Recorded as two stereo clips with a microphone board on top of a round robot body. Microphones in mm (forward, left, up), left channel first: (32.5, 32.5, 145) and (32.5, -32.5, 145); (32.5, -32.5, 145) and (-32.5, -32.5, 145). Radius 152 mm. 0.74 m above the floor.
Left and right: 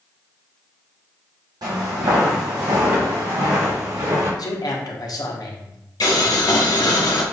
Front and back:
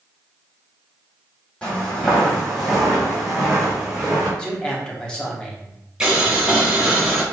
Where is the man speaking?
80° left, 1.2 m.